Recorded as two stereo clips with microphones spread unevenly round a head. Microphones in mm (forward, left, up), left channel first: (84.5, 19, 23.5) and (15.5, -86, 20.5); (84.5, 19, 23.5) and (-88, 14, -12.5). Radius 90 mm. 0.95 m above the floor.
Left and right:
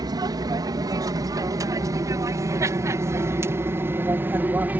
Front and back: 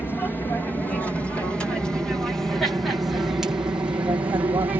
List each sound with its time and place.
0.0 s an aircraft: 85° right; by 4.8 s 175° right